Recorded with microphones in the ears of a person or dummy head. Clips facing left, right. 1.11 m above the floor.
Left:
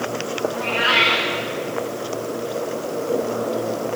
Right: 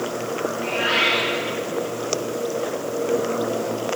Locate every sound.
0.5 s a cat meowing: 65° left (ahead or behind), 8.5 m